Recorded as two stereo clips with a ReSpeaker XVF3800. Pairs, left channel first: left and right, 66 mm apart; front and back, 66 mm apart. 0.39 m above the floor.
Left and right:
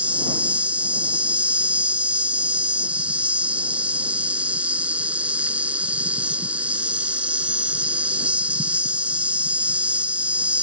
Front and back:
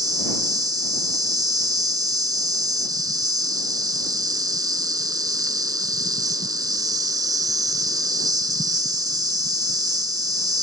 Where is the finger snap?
I don't hear a finger snap.